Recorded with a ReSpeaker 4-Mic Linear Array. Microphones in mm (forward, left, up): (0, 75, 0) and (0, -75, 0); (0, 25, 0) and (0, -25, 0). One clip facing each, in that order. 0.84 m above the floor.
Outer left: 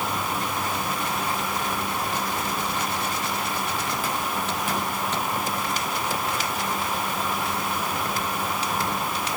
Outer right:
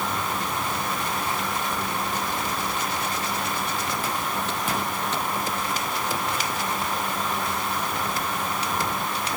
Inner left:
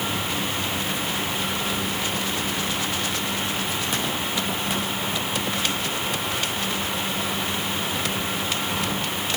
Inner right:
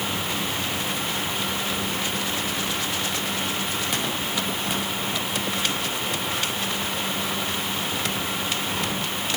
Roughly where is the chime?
No chime in this recording.